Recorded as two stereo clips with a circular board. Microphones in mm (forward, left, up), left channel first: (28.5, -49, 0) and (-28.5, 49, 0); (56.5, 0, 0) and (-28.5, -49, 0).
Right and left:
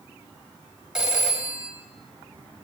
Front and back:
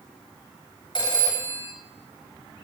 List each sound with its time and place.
0.9 s a phone ringing: 40° left, 1.3 m